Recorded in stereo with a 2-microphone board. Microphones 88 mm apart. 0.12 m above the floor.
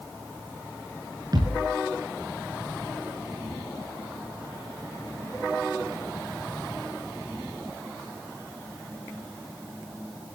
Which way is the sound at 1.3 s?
50° right (ahead or behind).